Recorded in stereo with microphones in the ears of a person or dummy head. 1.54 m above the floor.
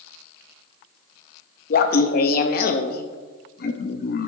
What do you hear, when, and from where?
1.7 s laughter: 50° left (ahead or behind), 0.6 m